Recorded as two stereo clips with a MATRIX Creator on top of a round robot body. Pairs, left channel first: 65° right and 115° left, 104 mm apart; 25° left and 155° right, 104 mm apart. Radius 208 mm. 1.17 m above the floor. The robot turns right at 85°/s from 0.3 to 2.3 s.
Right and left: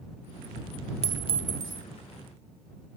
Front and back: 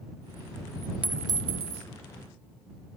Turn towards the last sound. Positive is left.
turn(degrees=-125)